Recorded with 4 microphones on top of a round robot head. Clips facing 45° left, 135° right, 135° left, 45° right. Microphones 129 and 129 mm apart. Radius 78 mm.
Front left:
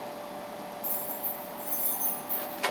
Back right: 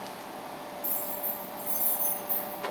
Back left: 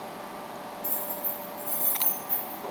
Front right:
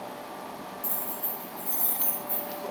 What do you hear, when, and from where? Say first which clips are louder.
0.8 s keys jangling: back right 1 dB, back left 2 dB; 45° right, 1.3 m; by 2.6 s straight behind, 0.6 m